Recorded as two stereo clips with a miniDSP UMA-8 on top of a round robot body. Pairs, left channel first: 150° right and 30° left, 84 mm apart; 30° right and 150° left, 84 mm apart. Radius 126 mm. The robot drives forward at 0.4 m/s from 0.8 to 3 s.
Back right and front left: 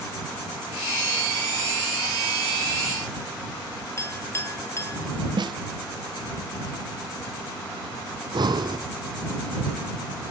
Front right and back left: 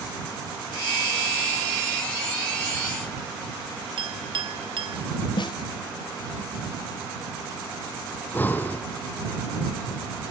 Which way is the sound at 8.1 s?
35° left.